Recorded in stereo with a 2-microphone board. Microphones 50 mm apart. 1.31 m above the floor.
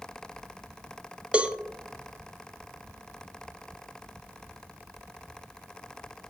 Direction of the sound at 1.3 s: 25° right (ahead or behind).